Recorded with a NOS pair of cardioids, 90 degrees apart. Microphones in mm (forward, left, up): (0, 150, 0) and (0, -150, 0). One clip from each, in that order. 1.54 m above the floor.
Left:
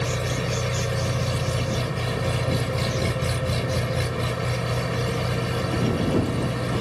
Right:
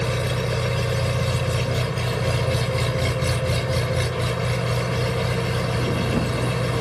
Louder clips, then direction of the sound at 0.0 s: Right 2 dB; 55° right.